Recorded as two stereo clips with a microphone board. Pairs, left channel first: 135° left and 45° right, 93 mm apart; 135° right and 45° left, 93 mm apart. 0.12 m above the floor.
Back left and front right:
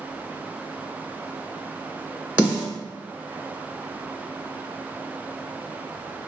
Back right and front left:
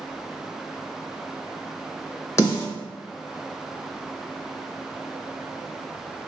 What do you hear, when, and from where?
2.4 s a snare drum: 110° right, 1.7 m